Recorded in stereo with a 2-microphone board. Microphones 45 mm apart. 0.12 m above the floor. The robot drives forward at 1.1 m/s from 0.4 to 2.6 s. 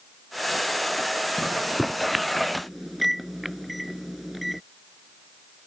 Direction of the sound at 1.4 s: 5° right (ahead or behind).